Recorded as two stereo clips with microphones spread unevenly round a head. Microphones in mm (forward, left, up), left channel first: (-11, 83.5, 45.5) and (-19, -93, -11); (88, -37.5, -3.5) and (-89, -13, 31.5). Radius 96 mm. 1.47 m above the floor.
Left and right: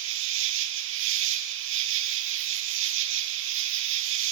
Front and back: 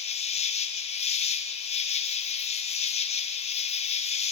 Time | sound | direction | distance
0.0 | an insect | 65° right | 1.0 m